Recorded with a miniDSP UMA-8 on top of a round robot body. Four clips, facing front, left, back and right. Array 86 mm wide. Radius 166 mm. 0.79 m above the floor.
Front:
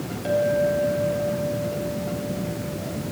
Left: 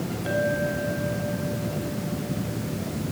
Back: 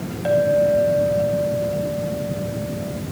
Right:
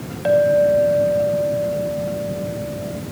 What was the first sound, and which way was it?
A clink, 105° right.